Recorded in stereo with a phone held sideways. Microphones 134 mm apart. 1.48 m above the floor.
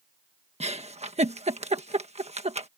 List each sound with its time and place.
0.6 s a giggle: 55° right (ahead or behind)